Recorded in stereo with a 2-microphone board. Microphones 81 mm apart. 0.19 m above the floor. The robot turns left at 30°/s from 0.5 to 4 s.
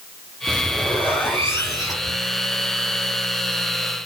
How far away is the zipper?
About 5 m.